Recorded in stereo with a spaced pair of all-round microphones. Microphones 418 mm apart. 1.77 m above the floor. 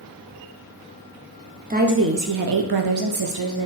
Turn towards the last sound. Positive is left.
turn(degrees=-60)  # may be behind; listen again after turning